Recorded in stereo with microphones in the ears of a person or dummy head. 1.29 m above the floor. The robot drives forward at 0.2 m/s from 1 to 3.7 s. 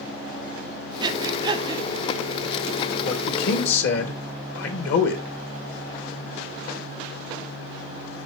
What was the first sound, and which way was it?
Breathing, 20° right (ahead or behind).